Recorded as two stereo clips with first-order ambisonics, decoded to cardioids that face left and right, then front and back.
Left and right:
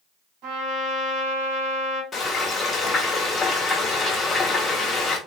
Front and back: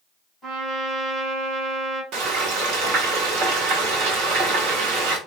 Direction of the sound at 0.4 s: 100° right.